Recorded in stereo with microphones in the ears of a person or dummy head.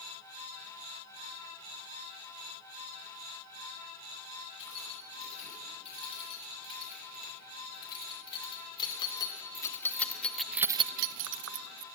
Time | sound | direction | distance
4.6 | keys jangling | 35° left (ahead or behind) | 9 m